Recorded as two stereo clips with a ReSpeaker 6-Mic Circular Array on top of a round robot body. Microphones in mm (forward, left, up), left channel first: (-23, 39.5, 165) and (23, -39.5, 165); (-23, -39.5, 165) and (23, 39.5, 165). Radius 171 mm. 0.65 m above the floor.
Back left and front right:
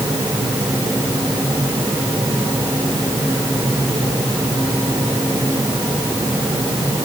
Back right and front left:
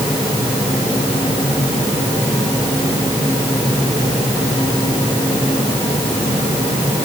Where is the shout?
I don't hear a shout.